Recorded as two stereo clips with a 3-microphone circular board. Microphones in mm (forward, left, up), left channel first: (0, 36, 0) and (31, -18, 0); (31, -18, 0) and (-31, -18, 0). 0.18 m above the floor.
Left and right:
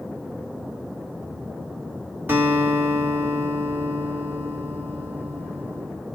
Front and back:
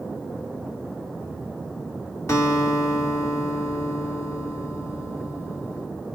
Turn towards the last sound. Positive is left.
turn(degrees=-15)